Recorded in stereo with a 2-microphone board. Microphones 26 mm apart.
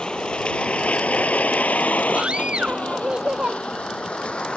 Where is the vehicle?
35° left (ahead or behind); by 4.6 s 45° left (ahead or behind).